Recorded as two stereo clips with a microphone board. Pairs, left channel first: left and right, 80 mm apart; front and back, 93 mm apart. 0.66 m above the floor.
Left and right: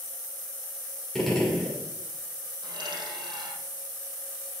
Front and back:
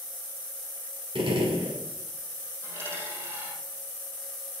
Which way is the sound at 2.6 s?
120° right.